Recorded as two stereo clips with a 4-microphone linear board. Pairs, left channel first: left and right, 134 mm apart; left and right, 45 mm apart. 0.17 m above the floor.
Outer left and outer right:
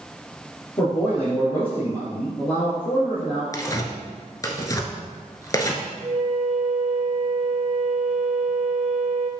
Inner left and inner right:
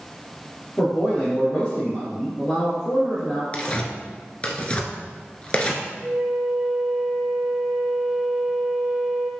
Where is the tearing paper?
25° left (ahead or behind), 0.9 m.